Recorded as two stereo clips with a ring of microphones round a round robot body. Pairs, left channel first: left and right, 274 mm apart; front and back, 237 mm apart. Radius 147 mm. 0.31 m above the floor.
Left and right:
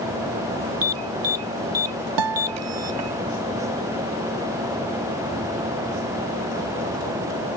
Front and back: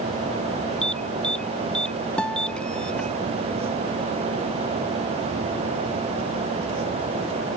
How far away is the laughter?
I don't hear laughter.